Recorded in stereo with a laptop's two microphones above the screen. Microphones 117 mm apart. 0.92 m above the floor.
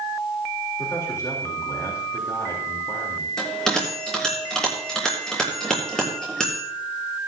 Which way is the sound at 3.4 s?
5° left (ahead or behind).